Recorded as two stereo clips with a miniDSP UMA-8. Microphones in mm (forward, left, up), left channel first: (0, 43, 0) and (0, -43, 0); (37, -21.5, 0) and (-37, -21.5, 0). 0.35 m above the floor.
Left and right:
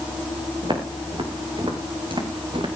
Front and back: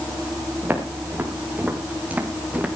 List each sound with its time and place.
0.6 s footsteps: 115° right, 5.5 m; by 2.7 s 105° right, 3 m